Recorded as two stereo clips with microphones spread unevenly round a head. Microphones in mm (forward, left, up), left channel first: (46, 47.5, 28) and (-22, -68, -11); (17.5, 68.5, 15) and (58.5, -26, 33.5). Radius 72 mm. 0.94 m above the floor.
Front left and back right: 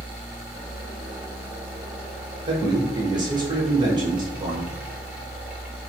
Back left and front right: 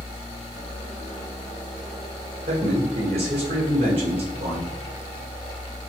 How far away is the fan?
About 0.8 m.